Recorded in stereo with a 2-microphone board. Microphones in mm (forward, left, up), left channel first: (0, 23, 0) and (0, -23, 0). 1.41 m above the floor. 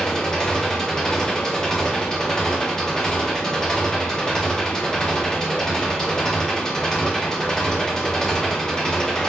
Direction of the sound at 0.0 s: 10° left (ahead or behind).